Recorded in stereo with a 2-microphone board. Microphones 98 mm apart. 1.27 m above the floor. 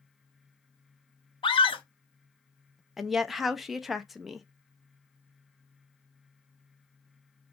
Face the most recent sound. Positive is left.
turn(degrees=0)  # may be behind; listen again after turning